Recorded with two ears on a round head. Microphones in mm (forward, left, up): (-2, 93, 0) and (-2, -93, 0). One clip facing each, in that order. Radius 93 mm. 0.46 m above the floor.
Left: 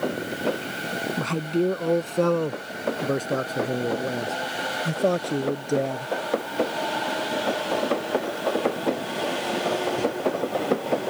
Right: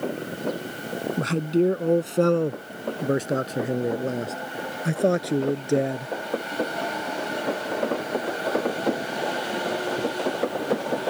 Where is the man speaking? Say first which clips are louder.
Right 3 dB; 15° right (ahead or behind).